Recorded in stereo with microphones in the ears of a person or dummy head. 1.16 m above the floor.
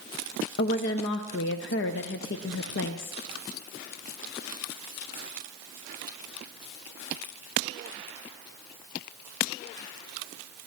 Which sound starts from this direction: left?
A woman speaking, at 0.6 s.